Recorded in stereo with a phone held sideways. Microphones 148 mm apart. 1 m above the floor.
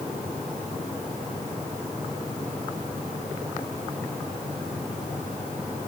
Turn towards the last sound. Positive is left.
No sound to turn to.